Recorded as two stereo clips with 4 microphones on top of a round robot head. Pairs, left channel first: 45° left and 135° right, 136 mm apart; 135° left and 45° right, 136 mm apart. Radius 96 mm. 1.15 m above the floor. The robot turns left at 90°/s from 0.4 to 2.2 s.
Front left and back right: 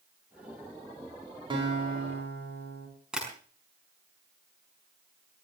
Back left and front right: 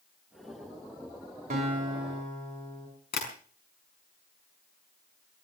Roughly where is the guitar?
Right.